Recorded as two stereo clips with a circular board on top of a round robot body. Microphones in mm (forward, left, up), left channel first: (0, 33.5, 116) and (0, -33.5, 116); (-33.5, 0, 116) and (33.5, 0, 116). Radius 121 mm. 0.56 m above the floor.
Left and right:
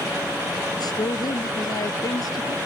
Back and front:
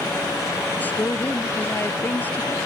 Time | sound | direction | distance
0.8 | a woman speaking | 115° left | ?